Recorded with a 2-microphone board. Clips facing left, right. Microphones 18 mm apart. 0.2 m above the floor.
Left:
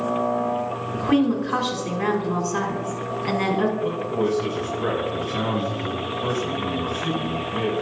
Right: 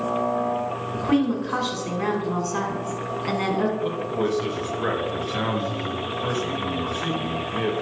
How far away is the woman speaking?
About 2.0 m.